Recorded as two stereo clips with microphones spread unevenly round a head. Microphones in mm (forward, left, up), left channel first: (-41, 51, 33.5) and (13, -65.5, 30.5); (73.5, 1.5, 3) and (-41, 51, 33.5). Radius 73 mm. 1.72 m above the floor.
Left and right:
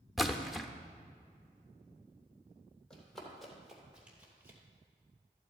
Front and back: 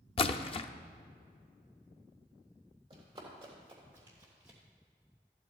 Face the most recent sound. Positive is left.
turn(degrees=-130)